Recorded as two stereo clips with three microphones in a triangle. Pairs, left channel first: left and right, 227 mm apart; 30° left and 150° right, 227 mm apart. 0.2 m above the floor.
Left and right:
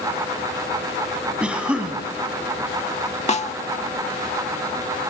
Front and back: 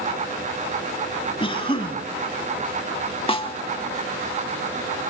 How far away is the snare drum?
About 0.5 m.